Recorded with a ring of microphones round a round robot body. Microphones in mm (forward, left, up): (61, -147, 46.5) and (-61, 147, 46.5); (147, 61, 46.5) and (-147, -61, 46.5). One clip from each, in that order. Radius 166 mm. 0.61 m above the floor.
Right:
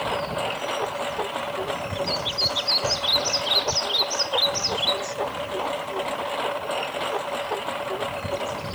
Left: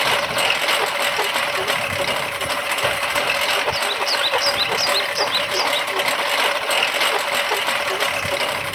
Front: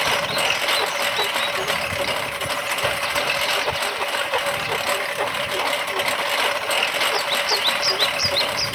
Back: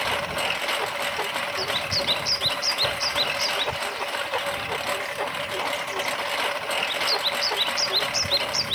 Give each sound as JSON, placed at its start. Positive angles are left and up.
{"t": 0.0, "sound": "a lawn mower", "azimuth_deg": 100}